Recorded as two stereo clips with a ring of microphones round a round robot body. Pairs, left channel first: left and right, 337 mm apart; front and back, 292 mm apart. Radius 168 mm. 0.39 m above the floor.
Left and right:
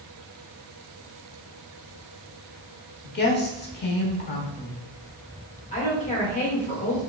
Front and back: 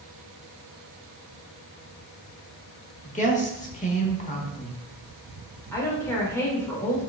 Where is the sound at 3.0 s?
50° left, 1.0 m.